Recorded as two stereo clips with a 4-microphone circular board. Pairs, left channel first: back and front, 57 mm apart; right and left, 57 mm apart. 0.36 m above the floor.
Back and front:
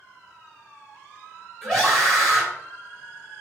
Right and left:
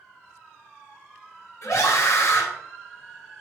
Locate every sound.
1.6 s a scream: 80° right, 3 m